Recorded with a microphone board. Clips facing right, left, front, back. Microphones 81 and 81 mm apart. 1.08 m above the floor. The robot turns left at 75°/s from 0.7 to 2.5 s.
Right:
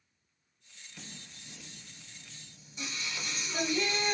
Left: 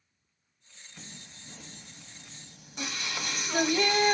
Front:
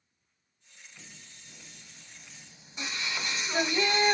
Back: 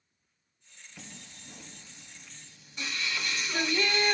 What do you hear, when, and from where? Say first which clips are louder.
1.0 s singing: left 1 dB, back 7 dB; 175° right, 0.8 m; by 4.1 s 70° left, 0.8 m